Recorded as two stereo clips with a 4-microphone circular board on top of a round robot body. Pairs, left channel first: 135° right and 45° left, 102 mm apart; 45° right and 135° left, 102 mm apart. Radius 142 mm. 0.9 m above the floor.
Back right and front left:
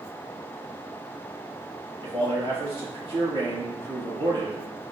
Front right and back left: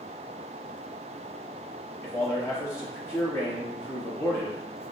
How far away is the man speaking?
About 2.5 m.